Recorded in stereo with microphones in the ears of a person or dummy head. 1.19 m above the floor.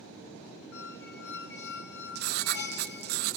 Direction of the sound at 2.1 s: 50° right (ahead or behind).